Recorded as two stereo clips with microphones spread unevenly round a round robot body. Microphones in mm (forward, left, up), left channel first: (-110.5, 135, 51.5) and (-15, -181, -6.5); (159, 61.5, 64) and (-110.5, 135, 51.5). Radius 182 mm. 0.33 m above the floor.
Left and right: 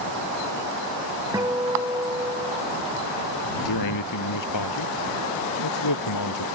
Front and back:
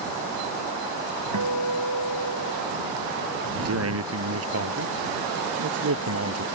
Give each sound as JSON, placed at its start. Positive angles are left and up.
{"t": 1.3, "sound": "a guitar", "azimuth_deg": -155}
{"t": 3.6, "sound": "a man speaking", "azimuth_deg": 135}